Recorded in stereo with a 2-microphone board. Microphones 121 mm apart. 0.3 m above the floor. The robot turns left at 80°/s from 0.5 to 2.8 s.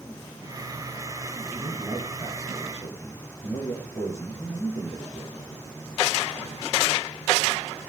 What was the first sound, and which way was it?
A man speaking, 125° right.